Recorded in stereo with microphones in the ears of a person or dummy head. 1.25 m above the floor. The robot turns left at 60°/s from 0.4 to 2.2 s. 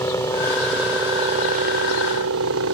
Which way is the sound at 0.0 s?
20° left (ahead or behind).